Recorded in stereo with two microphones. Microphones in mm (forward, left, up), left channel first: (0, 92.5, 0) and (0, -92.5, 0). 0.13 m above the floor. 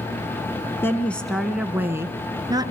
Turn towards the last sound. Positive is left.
turn(degrees=-25)  # may be behind; listen again after turning